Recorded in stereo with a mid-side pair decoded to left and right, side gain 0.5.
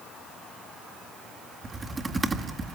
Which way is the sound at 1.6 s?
25° right.